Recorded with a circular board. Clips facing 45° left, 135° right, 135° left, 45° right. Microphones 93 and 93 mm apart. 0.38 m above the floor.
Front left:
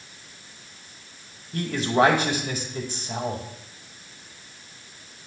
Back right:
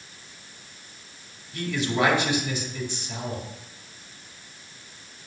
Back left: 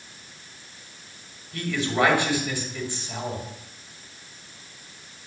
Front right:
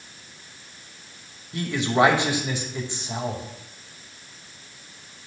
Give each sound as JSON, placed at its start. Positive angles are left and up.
{"t": 1.5, "sound": "a man speaking", "azimuth_deg": 15, "distance_m": 2.0}